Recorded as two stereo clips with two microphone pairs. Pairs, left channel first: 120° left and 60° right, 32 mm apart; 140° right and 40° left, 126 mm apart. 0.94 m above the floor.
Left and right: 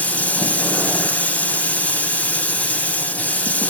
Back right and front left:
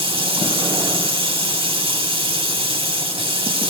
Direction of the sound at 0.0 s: 80° left.